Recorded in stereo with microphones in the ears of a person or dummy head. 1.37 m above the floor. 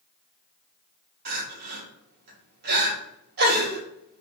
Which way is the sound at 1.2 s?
50° right (ahead or behind).